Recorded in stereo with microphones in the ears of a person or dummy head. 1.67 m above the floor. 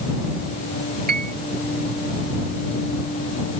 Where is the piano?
45° right (ahead or behind).